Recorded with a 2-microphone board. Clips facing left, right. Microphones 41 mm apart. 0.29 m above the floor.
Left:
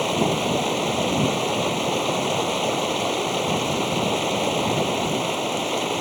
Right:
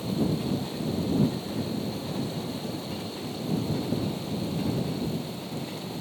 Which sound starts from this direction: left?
Running water, at 0.0 s.